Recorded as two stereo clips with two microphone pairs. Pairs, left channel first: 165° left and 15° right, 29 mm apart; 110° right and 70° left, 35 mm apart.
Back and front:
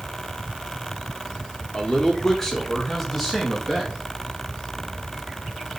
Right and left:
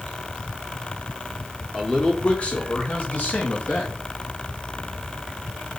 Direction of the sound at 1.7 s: Straight behind.